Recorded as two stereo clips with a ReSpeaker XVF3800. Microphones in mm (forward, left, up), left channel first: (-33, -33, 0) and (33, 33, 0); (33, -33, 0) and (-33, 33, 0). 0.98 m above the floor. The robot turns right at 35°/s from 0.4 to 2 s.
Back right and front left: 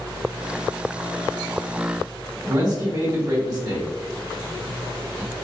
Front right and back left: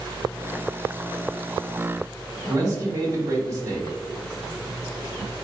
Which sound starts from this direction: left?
A man speaking, at 2.5 s.